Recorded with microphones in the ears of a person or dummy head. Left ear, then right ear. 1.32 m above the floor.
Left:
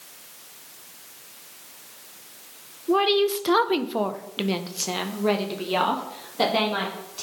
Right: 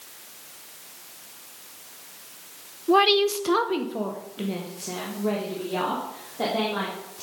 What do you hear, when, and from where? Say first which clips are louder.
2.9 s a woman speaking: right 2 dB; 15° right (ahead or behind), 0.7 m; by 7.2 s 80° left, 2.5 m